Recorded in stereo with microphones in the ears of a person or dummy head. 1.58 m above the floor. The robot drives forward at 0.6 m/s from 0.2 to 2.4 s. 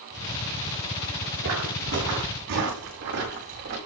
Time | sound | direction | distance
1.4 | footsteps | 70° right (ahead or behind) | 6 m